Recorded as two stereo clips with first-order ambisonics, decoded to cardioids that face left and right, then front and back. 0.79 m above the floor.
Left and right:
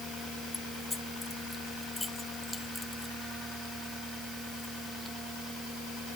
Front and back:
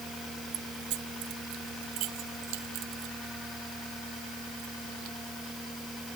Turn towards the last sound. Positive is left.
turn(degrees=180)